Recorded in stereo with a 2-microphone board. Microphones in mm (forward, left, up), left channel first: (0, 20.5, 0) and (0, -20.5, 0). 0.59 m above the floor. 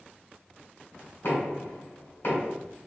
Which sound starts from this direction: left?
Knocking, at 1.2 s.